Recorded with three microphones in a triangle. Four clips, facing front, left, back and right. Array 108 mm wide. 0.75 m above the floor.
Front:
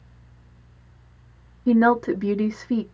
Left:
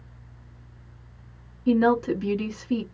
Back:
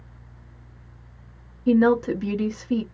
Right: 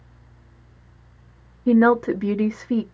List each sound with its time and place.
1.7 s a woman speaking: 65° right, 0.6 m